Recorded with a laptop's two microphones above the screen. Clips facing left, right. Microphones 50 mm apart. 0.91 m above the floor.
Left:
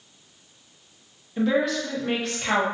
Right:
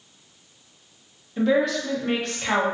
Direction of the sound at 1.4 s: Centre (ahead or behind).